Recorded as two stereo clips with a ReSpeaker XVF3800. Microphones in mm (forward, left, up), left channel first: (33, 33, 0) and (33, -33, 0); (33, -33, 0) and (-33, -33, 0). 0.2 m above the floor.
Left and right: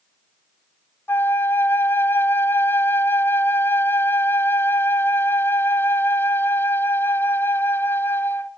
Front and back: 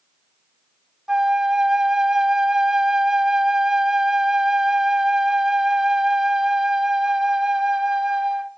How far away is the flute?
About 0.6 m.